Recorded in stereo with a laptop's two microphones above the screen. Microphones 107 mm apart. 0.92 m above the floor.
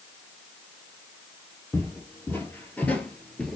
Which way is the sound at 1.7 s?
20° left (ahead or behind).